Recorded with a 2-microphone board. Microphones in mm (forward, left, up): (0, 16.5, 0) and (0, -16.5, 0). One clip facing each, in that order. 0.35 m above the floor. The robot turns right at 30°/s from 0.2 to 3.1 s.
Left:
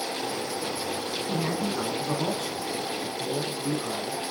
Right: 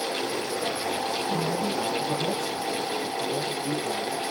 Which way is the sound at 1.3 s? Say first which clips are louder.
Right 1 dB; 60° left.